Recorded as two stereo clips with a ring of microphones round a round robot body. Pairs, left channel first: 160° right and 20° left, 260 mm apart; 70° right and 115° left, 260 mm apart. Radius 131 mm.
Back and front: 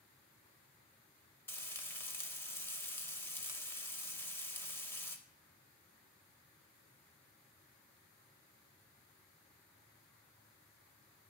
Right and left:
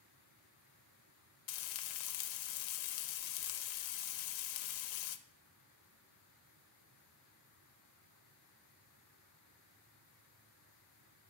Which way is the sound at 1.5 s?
75° right.